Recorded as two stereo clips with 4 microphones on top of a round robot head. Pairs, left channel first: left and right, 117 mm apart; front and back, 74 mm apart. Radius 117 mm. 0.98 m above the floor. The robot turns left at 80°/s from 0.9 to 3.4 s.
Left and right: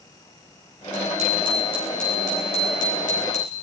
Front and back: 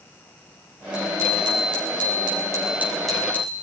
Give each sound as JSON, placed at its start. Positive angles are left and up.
{"t": 0.9, "sound": "a bicycle bell", "azimuth_deg": -100, "distance_m": 6.5}